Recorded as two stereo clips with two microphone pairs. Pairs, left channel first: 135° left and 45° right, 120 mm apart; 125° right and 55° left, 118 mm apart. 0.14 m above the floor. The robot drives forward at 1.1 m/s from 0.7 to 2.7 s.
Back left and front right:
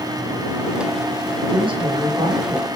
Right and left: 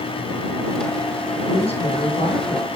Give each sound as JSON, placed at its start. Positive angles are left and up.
{"t": 1.5, "sound": "a woman speaking", "azimuth_deg": -85, "distance_m": 7.5}